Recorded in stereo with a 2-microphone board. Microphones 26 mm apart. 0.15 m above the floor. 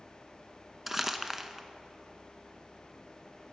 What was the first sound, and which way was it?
Crumpling, 15° right (ahead or behind).